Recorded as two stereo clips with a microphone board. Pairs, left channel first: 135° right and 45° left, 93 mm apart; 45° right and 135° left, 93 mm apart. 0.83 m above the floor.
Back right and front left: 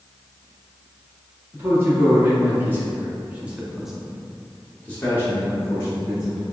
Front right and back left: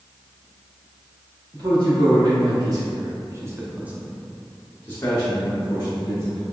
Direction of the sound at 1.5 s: 105° left.